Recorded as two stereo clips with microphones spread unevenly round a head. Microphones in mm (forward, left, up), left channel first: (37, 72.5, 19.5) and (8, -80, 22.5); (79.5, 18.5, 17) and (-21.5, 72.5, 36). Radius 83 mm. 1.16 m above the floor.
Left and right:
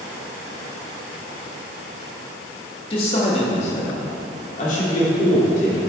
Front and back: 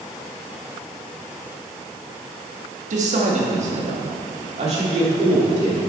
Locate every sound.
2.9 s a man speaking: 140° left, 1.8 m; by 5.8 s 120° left, 3.5 m